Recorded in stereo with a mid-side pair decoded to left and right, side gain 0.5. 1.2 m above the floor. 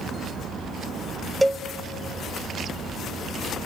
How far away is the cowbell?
About 1.1 m.